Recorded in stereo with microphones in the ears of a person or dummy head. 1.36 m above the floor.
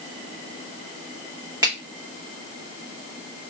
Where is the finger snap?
15° right (ahead or behind), 1.1 m.